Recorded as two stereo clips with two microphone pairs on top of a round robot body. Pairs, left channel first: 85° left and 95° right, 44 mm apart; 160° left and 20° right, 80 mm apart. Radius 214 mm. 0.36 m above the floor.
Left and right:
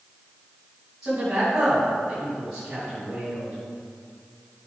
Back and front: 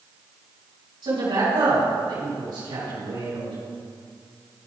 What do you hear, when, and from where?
1.0 s a man speaking: 15° right, 3.5 m